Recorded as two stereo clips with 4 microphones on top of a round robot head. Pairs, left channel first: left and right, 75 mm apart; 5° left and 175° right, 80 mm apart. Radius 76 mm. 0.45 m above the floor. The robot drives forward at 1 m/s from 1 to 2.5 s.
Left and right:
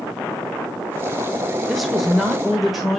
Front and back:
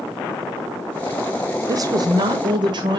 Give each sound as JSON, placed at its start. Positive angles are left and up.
{"t": 1.7, "sound": "a woman speaking", "azimuth_deg": 180, "distance_m": 0.9}